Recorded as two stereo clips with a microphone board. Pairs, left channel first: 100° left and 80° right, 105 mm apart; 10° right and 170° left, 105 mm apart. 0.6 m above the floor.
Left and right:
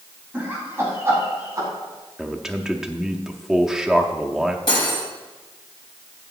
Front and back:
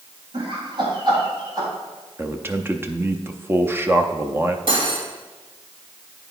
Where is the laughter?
155° right, 3.5 m; by 1.7 s 140° right, 4 m.